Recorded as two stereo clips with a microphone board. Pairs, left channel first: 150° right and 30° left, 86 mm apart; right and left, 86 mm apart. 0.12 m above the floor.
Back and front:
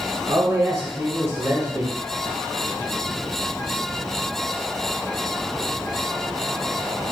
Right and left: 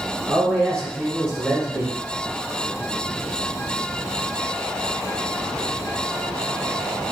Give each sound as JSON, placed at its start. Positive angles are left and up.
{"t": 0.3, "sound": "a man speaking", "azimuth_deg": -10, "distance_m": 1.4}